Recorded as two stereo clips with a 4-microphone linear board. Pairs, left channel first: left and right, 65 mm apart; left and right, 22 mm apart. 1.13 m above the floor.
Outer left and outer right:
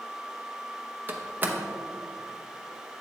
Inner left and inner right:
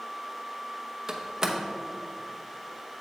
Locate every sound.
1.1 s a door slam: 30° right (ahead or behind), 0.8 m